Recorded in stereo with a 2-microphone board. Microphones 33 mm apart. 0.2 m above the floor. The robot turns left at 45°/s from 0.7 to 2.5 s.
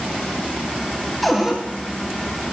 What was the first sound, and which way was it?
A cupboard door, centre (ahead or behind).